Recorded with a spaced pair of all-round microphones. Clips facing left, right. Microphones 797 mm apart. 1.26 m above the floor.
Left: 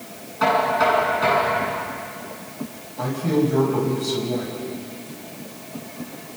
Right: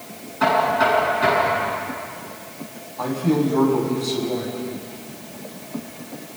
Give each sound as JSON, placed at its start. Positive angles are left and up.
{"t": 0.4, "sound": "knocking", "side_deg": 15, "distance_m": 8.5}
{"t": 3.0, "sound": "a man speaking", "side_deg": 45, "distance_m": 6.5}